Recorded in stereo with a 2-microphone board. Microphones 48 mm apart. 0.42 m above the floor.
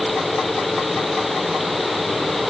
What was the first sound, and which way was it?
Only background noise.